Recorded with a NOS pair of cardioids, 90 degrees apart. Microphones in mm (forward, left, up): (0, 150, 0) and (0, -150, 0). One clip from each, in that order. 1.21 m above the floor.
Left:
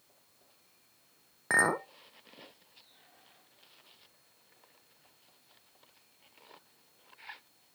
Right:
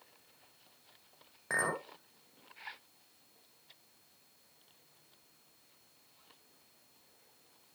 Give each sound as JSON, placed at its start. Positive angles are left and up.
{"t": 1.5, "sound": "a clink", "azimuth_deg": 40, "distance_m": 0.8}